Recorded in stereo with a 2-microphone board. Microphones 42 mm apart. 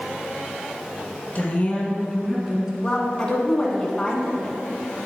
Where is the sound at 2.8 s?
20° left (ahead or behind), 1.1 m.